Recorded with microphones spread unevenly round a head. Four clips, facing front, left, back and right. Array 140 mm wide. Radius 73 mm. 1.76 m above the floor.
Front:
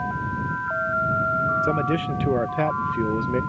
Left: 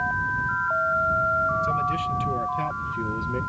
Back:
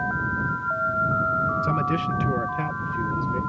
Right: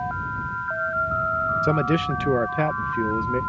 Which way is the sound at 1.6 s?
55° right.